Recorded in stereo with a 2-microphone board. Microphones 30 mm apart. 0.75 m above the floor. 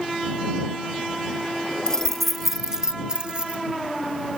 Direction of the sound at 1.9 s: 20° left (ahead or behind).